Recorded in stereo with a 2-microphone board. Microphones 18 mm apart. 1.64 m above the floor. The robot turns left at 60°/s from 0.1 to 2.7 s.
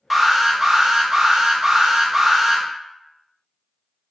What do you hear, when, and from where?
0.1 s an alarm: 15° right, 0.6 m; by 2.6 s 170° right, 0.6 m